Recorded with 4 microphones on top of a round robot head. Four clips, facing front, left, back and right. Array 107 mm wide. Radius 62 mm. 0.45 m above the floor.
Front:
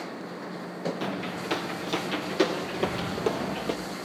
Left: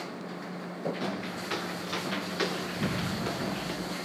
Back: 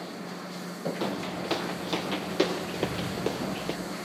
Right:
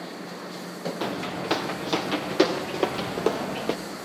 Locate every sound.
1.0 s footsteps: 115° right, 2.5 m; by 3.8 s 80° right, 3 m
2.8 s an explosion: 115° left, 3.5 m